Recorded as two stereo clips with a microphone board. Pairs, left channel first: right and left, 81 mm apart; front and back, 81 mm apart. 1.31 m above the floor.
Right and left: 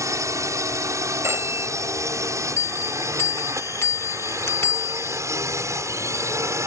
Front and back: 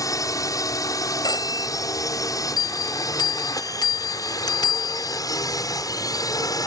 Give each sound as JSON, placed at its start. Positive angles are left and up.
{"t": 0.0, "sound": "a drone", "azimuth_deg": 45}
{"t": 1.2, "sound": "a phone ringing", "azimuth_deg": 35}
{"t": 2.6, "sound": "a bell", "azimuth_deg": -35}